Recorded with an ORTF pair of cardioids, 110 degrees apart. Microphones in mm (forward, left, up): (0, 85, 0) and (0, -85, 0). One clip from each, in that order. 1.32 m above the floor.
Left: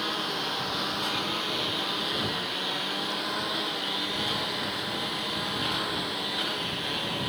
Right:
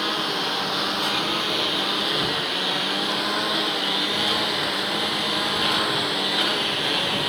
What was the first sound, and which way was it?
A lawn mower, 35° right.